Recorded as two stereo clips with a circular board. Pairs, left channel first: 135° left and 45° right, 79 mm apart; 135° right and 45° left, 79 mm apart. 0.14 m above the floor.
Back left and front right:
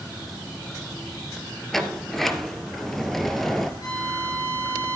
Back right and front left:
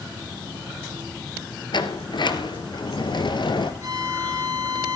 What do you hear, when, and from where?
1.7 s a sliding door: 140° right, 1.2 m
3.8 s a violin: 95° left, 5.5 m